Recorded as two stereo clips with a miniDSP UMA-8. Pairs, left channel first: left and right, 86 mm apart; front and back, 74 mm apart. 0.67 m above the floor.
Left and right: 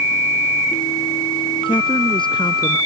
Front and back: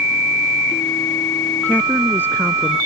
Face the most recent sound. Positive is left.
turn(degrees=60)